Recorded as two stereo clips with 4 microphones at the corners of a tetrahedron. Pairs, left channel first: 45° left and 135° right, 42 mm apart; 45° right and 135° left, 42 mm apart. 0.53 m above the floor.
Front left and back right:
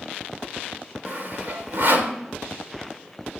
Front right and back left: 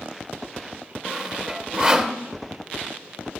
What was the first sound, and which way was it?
Sawing, 160° right.